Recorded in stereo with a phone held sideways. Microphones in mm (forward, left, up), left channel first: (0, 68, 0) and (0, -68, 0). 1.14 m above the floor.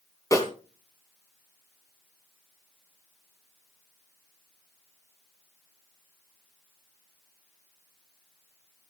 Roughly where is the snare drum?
Left.